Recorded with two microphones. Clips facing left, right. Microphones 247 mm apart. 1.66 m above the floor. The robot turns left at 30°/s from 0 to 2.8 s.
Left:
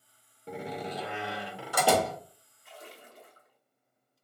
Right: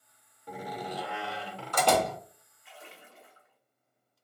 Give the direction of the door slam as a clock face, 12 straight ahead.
10 o'clock.